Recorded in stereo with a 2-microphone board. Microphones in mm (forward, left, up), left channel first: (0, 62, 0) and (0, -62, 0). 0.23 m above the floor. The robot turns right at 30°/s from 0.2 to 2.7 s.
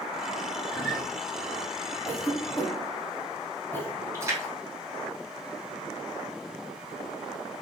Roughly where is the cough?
Left.